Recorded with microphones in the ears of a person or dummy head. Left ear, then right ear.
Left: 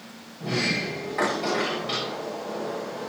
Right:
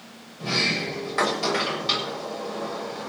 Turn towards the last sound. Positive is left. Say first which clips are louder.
# right 2 dB
turn(degrees=-55)  # may be behind; listen again after turning